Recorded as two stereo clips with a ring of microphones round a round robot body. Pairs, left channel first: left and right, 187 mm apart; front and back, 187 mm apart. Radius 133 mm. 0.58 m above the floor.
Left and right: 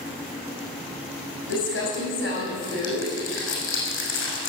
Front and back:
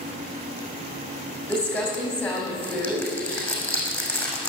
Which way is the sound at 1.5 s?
85° left.